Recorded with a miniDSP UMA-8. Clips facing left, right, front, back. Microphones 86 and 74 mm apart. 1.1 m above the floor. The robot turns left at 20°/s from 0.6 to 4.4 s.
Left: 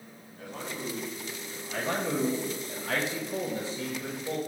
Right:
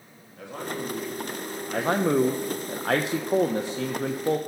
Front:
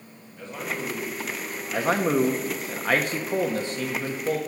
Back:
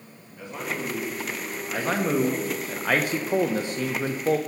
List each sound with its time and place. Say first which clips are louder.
0.4 s a man speaking: right 5 dB, even; 95° right, 2 m; by 2.7 s 140° right, 2 m
1.7 s a man speaking: right 7 dB, front 2 dB; 70° right, 0.5 m; by 4.4 s 120° right, 0.5 m